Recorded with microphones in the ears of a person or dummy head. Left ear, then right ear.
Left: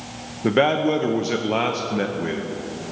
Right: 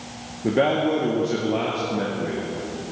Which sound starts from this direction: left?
A man speaking, at 0.4 s.